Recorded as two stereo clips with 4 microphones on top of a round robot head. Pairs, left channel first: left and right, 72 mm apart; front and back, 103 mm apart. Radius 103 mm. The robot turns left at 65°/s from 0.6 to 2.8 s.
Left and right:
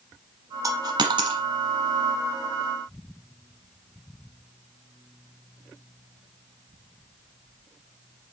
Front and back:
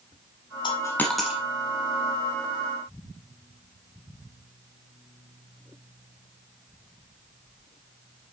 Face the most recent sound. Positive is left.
turn(degrees=170)